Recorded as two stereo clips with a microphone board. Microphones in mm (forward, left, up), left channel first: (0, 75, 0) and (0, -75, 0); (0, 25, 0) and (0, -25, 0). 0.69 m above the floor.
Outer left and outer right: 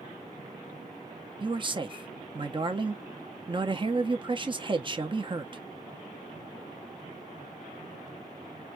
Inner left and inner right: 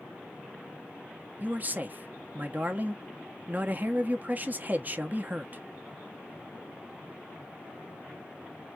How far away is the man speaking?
About 0.7 m.